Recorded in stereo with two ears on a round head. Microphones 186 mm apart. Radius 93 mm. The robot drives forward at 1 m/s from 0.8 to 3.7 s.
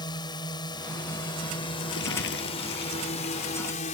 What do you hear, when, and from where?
0.0 s a drone: 20° left (ahead or behind); by 4.0 s 35° left (ahead or behind)
1.9 s crumpling: 60° left (ahead or behind); by 3.8 s 50° left (ahead or behind)